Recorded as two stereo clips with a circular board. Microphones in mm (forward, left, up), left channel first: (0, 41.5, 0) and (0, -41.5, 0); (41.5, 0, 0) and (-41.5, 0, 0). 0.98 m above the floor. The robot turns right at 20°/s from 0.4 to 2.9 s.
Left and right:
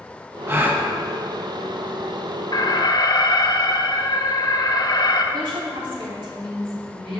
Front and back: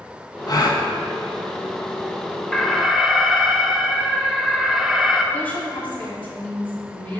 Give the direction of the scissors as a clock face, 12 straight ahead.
I don't hear scissors.